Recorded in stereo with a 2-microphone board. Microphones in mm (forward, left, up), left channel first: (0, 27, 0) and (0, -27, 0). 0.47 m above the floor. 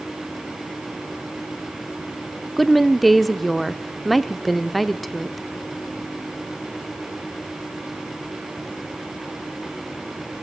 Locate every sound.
2.6 s a woman speaking: centre (ahead or behind), 0.7 m